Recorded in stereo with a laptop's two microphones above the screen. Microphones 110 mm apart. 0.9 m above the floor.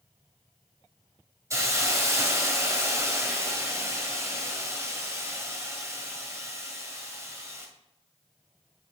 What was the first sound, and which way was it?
A hiss, 25° right (ahead or behind).